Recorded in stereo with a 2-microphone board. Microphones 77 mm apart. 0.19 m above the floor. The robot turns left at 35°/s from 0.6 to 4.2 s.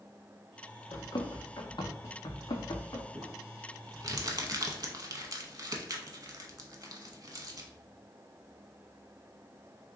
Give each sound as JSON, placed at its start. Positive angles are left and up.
{"t": 0.9, "sound": "running footsteps", "side_deg": 75, "distance_m": 1.1}
{"t": 3.1, "sound": "crumpling", "side_deg": -35, "distance_m": 0.6}